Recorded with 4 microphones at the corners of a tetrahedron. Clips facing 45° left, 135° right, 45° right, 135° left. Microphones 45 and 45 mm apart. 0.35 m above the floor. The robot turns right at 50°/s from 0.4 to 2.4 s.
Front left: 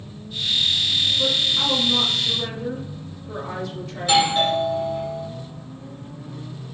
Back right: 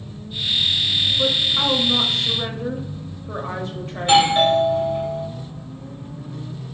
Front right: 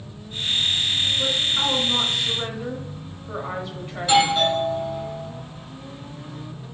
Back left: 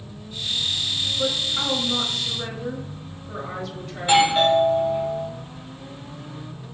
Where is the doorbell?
Straight behind, 2.0 m.